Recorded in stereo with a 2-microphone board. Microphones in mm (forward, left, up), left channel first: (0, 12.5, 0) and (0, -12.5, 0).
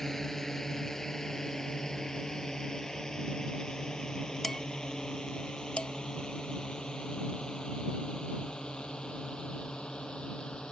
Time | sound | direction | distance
0.0 | a drone | 15° left (ahead or behind) | ?
4.4 | dishes clattering | 15° left (ahead or behind) | ?
5.8 | dishes clattering | 45° left (ahead or behind) | ?